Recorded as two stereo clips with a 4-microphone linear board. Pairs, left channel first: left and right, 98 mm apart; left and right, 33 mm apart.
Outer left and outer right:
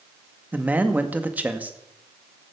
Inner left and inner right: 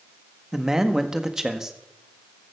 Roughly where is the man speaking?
Centre.